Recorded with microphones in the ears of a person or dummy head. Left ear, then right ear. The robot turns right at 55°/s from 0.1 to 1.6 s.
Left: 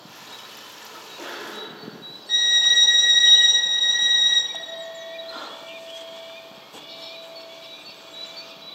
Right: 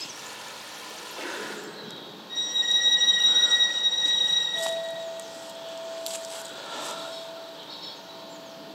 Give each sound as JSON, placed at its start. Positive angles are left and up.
{"t": 0.9, "sound": "a sneeze", "azimuth_deg": -115, "distance_m": 2.0}
{"t": 2.3, "sound": "a violin", "side_deg": 55, "distance_m": 0.8}
{"t": 4.5, "sound": "a clink", "side_deg": 40, "distance_m": 1.0}